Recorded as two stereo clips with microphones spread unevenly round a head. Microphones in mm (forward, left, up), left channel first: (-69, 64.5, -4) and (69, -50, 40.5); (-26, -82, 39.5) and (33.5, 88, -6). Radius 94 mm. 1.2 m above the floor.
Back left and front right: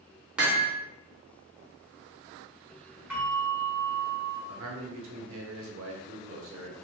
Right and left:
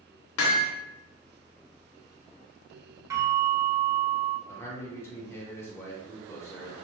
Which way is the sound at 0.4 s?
130° right.